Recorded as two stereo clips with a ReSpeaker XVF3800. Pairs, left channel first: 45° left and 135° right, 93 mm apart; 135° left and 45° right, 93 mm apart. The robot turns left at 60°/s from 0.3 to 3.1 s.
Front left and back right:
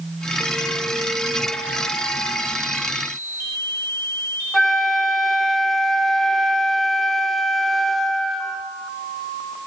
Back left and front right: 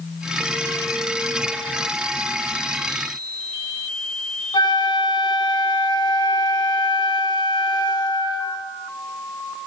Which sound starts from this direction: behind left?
A flute, at 4.5 s.